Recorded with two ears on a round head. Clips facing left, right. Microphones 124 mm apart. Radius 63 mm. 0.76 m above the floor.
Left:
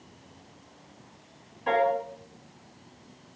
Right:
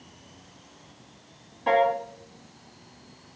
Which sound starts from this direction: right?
A piano, at 1.7 s.